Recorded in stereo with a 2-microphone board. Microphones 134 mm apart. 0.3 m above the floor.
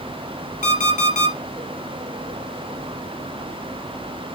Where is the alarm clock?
80° left, 2.5 m.